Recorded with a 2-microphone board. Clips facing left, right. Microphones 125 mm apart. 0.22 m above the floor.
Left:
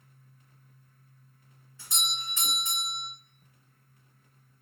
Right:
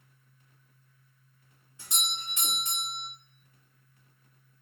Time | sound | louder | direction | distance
1.8 | a doorbell | left 1 dB | 15° right (ahead or behind) | 1.7 m